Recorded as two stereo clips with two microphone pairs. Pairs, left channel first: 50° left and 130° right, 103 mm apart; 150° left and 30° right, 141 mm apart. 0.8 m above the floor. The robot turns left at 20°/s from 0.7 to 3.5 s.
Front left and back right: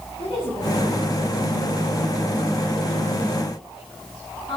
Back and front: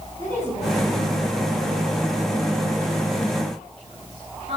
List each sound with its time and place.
0.2 s a woman speaking: 80° left, 6.5 m; by 4.6 s 20° left, 6.5 m